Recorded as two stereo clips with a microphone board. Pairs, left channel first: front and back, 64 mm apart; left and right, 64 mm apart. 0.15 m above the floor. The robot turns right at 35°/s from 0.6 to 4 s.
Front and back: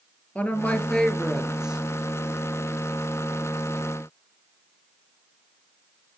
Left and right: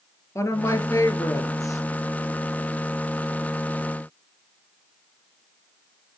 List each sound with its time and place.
0.3 s a woman speaking: 65° left, 2 m; by 1.8 s 105° left, 2 m